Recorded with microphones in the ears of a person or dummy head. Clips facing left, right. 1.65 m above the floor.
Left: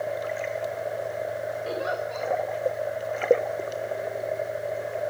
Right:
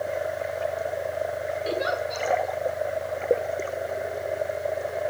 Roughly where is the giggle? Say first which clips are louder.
Right 4 dB; right.